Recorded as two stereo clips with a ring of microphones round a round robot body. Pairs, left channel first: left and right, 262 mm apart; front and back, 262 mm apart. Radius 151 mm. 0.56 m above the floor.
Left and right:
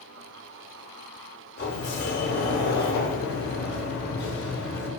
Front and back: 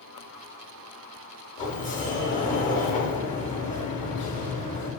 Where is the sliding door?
55° left, 0.9 m.